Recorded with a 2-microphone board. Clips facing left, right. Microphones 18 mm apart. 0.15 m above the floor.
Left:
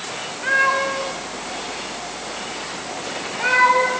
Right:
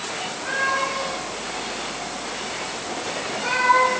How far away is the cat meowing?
About 8.5 m.